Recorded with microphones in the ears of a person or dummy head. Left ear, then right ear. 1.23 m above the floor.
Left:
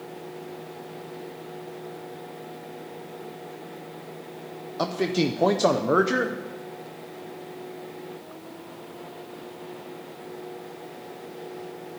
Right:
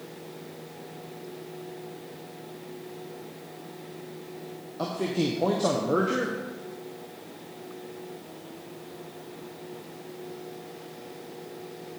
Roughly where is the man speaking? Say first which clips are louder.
Left 4 dB; left.